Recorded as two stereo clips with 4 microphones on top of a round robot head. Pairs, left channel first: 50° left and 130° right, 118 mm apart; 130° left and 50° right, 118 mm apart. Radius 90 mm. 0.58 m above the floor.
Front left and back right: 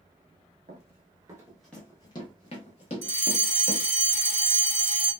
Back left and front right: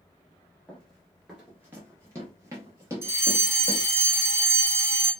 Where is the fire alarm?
80° right, 1.8 m.